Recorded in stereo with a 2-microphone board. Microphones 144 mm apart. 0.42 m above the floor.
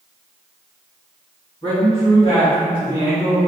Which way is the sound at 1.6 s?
45° left (ahead or behind).